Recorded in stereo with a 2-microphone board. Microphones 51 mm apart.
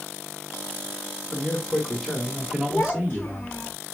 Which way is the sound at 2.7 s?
50° left (ahead or behind).